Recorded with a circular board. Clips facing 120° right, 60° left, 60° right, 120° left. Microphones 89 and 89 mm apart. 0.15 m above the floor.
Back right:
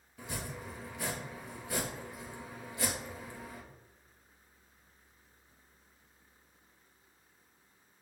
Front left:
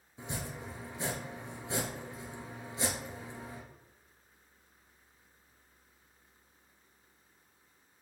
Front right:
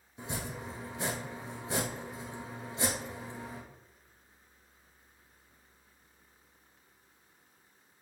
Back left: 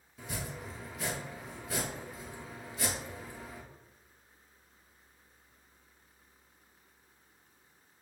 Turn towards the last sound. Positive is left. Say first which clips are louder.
# front left 1 dB, front right 2 dB
turn(degrees=0)